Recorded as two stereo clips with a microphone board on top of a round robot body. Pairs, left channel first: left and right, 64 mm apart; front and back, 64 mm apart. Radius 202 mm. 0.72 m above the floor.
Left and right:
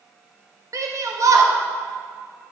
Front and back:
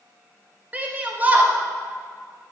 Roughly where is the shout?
Behind right.